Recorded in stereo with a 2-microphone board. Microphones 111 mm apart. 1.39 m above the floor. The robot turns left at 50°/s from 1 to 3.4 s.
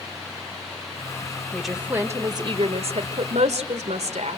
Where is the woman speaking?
5° left, 1.6 m; by 4.4 s 90° right, 1.6 m.